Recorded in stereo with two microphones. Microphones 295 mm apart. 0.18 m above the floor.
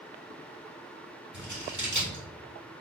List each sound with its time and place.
1.3 s scissors: 80° right, 1.8 m